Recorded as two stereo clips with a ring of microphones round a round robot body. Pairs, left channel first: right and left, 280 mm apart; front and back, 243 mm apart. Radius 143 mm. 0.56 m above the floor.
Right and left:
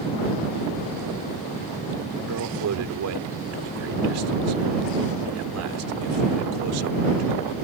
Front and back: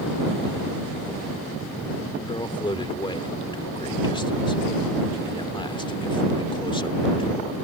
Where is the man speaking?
70° left.